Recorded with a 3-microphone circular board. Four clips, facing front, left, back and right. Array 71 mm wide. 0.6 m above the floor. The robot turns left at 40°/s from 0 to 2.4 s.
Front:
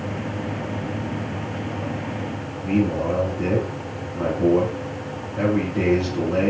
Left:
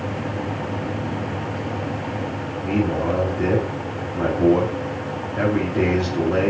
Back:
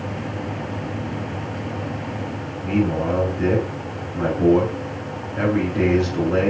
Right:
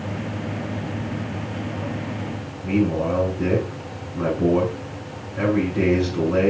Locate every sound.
2.6 s a man speaking: 130° left, 3.5 m